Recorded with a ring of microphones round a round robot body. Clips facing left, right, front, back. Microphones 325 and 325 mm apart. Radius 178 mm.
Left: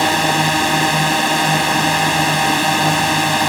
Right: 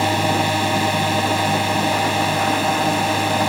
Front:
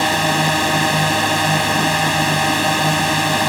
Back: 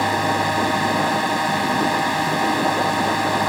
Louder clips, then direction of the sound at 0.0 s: Left 2 dB, front 2 dB; 35° left.